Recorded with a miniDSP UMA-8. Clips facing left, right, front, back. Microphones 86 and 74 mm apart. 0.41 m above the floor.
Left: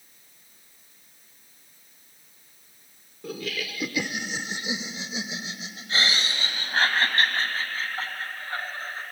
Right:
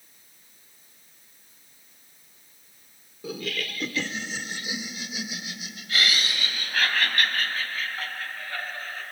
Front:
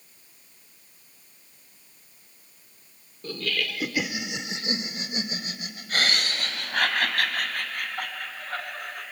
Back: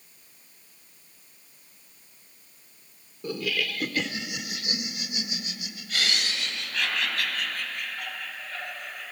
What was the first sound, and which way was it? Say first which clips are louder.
Laughter: even, back 1 dB; 170° right.